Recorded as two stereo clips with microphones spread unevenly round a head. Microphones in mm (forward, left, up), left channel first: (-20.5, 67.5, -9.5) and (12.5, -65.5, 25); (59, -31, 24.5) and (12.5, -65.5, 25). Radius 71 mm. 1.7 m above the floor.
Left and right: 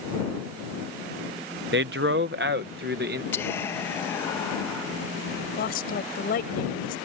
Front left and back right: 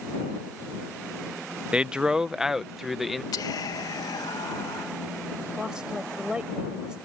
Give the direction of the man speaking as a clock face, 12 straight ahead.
2 o'clock.